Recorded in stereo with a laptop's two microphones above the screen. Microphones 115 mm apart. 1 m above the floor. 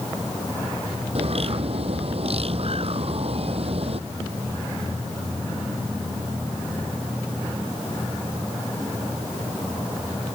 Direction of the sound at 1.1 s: 55° right (ahead or behind).